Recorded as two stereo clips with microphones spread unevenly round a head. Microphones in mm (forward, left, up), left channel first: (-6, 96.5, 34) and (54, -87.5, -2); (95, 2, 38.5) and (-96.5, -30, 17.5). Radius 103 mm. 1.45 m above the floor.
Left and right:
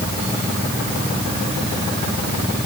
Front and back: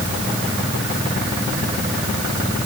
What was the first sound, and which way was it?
Only background noise.